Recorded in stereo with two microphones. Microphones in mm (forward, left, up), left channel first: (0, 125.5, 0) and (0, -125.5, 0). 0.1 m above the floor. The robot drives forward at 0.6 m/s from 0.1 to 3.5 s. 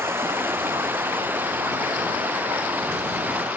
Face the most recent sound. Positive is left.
turn(degrees=-5)  # may be behind; listen again after turning